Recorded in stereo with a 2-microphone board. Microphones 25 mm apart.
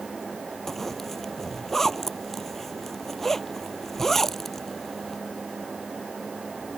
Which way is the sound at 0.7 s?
10° left (ahead or behind).